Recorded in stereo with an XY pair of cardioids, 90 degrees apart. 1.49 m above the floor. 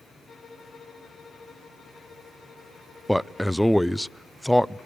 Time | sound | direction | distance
0.3 | a violin | 50° left | 5 m
3.1 | a man speaking | 10° left | 0.5 m